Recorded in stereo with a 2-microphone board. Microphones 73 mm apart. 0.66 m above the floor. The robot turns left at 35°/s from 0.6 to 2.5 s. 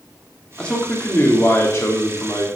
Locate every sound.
0.6 s a man speaking: 165° left, 1.7 m; by 2.5 s 100° left, 1.7 m